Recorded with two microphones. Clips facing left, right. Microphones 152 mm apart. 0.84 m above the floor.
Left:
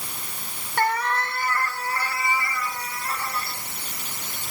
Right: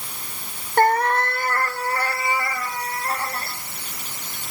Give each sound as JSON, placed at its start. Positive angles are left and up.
{"t": 0.8, "sound": "a cat meowing", "side_deg": -45, "distance_m": 0.6}